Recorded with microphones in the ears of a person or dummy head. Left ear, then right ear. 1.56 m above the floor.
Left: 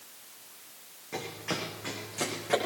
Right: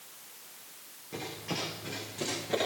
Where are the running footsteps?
35° left (ahead or behind), 5 m; by 2.5 s 40° left (ahead or behind), 7 m.